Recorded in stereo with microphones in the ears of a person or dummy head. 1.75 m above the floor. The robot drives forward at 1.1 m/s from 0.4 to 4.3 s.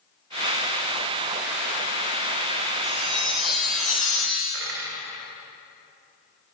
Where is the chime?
10° left (ahead or behind), 2 m; by 4.4 s 5° left (ahead or behind), 3.5 m.